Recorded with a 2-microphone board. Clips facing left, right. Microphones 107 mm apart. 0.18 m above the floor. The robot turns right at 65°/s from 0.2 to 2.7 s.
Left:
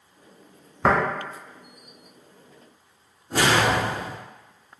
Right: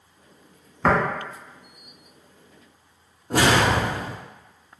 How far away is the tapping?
About 1.3 m.